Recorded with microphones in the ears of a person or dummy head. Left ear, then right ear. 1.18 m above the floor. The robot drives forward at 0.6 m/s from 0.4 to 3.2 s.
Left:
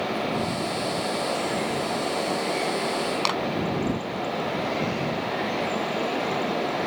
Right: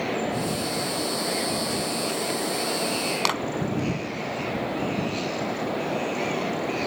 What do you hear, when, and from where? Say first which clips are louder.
3.2 s a clap: right 1 dB; 10° right (ahead or behind)